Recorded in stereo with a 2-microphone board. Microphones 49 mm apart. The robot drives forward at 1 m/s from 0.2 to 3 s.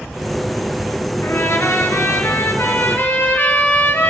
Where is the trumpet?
60° left (ahead or behind), 1.8 m; by 4.1 s 50° left (ahead or behind), 2 m.